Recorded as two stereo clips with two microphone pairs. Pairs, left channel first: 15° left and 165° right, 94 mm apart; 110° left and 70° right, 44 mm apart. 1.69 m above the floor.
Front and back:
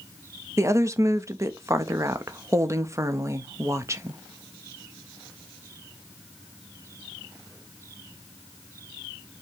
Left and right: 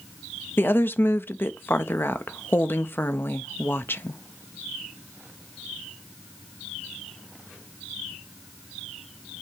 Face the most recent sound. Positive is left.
turn(degrees=140)